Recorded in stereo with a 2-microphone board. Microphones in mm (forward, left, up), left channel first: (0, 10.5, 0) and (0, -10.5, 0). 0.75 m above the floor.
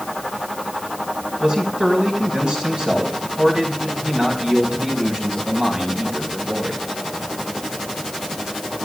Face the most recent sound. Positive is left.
turn(degrees=-50)  # may be behind; listen again after turning